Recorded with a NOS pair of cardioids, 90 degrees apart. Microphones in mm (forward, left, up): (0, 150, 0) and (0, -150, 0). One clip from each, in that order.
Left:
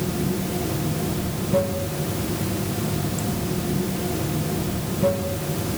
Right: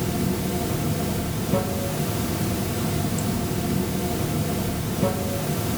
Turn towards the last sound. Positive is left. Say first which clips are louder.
# even
turn(degrees=-15)